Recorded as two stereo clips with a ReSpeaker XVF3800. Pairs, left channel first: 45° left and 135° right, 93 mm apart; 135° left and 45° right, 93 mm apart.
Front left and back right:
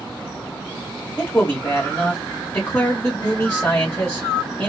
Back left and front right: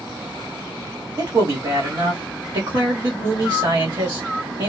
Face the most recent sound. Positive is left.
turn(degrees=-20)